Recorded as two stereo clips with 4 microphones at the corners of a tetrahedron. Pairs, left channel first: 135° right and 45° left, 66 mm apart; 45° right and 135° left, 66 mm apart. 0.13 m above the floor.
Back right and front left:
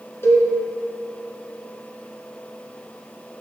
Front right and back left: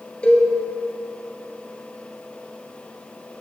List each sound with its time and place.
0.2 s a cowbell: 110° right, 2.0 m